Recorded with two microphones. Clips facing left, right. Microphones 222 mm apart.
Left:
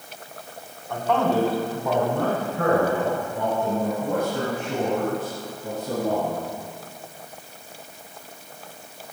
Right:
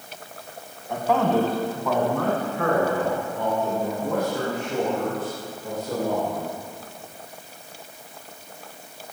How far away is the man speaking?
About 1.3 m.